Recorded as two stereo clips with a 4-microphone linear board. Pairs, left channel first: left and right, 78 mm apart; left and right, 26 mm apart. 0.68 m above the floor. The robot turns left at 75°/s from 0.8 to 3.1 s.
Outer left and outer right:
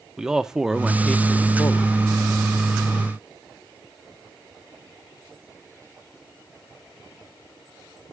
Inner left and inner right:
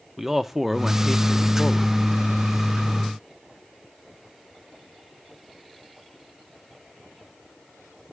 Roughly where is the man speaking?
Behind.